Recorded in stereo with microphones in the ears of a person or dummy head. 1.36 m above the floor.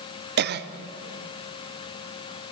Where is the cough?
55° right (ahead or behind), 0.7 m.